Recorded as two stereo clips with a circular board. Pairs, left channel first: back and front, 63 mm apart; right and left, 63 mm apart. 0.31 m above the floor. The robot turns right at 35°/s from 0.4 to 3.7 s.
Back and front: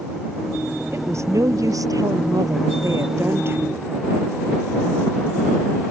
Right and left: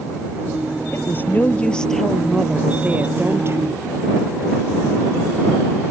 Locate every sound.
0.9 s a woman speaking: 45° right; by 4.3 s 55° left